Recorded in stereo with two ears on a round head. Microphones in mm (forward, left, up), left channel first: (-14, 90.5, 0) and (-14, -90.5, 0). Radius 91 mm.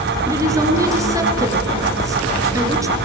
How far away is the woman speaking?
About 7.5 m.